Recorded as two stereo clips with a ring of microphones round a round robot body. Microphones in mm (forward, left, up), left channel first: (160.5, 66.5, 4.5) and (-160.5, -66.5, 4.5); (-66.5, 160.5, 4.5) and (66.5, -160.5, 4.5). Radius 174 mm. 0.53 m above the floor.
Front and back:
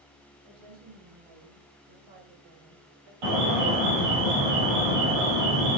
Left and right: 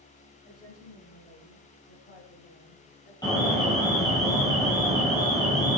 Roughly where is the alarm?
Behind.